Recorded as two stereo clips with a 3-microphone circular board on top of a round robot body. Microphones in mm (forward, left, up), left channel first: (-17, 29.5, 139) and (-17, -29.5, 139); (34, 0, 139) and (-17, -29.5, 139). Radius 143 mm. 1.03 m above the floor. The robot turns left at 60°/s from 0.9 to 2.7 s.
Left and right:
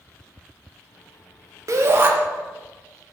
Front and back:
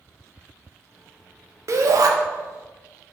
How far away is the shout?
About 0.7 m.